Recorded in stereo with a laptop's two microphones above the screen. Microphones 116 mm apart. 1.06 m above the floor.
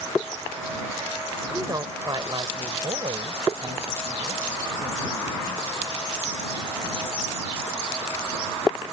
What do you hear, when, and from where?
1.5 s a woman speaking: 35° right (ahead or behind); by 5.7 s 75° right (ahead or behind)